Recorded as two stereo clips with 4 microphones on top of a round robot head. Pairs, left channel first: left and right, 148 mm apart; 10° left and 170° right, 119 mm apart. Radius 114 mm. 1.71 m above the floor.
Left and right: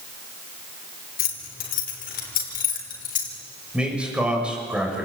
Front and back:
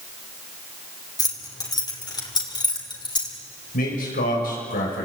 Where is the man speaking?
5° right, 7 m.